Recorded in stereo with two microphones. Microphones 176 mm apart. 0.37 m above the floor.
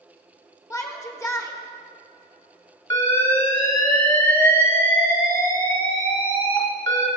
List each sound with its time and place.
0.7 s a shout: 20° left (ahead or behind), 0.8 m
2.9 s an alarm: 15° left (ahead or behind), 1.8 m